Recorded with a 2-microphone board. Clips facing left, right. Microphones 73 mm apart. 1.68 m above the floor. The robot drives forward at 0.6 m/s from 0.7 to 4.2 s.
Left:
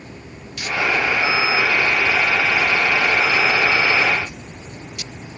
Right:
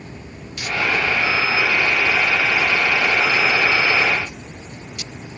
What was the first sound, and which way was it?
Only background noise.